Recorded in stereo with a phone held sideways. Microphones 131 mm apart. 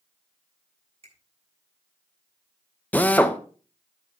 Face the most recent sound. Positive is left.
turn(degrees=10)  # may be behind; listen again after turning